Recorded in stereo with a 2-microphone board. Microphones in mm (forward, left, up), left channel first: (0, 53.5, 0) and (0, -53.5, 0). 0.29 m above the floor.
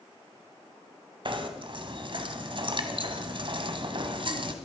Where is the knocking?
55° right (ahead or behind), 1.6 m.